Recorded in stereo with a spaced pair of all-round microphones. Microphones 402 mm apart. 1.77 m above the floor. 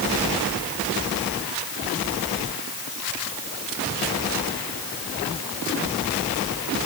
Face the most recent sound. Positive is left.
No sound to turn to.